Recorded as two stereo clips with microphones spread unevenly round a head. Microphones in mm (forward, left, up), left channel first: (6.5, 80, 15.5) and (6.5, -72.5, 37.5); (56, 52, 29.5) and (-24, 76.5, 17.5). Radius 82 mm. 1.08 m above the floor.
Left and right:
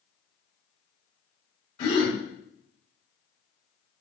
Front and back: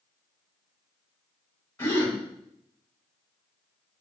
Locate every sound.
1.8 s a gasp: 40° left, 1.6 m